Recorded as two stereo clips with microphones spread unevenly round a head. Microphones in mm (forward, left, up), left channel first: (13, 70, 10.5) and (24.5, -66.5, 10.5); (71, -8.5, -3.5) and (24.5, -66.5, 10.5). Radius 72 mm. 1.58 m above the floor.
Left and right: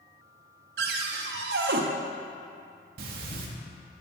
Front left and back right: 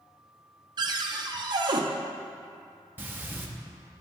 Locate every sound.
0.8 s a cupboard door: 100° right, 0.6 m
3.0 s breathing: 65° right, 0.8 m